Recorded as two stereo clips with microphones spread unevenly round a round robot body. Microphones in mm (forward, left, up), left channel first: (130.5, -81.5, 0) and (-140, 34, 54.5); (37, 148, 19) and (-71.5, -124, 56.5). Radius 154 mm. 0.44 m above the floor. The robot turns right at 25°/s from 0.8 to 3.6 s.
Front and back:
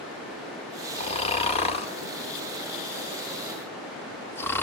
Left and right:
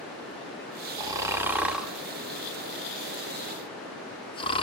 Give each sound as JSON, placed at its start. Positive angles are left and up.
{"t": 1.0, "sound": "snoring", "azimuth_deg": -35, "distance_m": 1.5}